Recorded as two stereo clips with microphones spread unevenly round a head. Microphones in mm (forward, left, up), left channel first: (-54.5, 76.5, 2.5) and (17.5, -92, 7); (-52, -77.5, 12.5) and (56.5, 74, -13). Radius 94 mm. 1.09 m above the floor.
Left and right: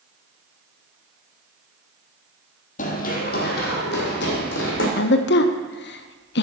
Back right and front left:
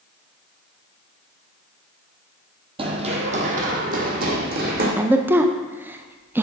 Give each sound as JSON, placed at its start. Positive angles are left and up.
{"t": 2.8, "sound": "running footsteps", "azimuth_deg": 110, "distance_m": 1.3}
{"t": 5.0, "sound": "a woman speaking", "azimuth_deg": 130, "distance_m": 0.7}